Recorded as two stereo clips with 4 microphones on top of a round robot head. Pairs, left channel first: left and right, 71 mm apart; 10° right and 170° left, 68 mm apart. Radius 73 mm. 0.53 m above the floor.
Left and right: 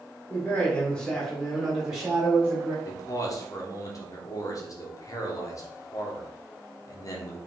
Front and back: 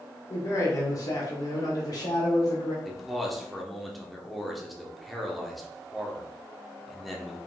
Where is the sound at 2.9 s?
80° left, 1.3 m.